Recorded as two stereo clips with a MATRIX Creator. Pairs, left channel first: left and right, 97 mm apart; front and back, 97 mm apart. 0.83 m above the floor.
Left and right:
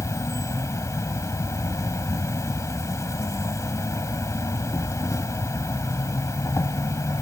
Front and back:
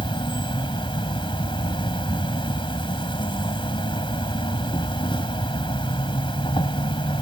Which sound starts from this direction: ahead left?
An insect, at 0.0 s.